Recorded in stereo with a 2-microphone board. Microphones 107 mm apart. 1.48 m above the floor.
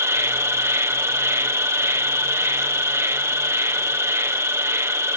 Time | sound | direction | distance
0.0 | an insect | 25° right (ahead or behind) | ?